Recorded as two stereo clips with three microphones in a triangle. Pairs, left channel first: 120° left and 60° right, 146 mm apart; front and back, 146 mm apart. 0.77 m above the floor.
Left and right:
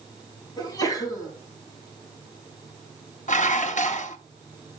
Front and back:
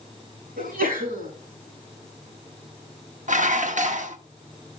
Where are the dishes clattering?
150° left, 0.8 m.